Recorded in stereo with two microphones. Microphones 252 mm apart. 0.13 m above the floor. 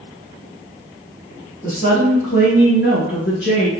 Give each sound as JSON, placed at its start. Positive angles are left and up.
{"t": 1.6, "sound": "a woman speaking", "side_deg": 35, "distance_m": 2.0}